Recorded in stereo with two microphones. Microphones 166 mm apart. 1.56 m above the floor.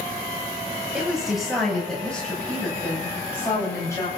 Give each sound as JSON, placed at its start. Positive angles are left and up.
{"t": 0.9, "sound": "a woman speaking", "side_deg": -5, "distance_m": 9.0}